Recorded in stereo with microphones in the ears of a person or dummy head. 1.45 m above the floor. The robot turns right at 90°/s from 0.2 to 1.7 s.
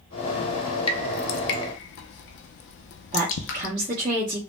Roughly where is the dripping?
Left.